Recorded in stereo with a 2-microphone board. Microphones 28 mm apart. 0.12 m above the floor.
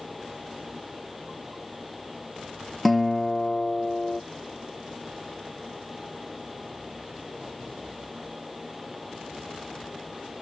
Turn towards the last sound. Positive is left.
turn(degrees=5)  # may be behind; listen again after turning